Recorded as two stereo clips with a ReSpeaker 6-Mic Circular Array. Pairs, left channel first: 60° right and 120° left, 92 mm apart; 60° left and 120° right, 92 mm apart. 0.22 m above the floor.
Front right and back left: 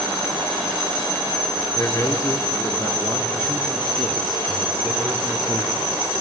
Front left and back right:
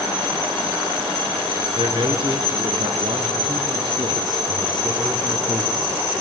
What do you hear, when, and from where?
1.8 s a man speaking: 105° right, 3.5 m; by 6.2 s 165° left, 2.5 m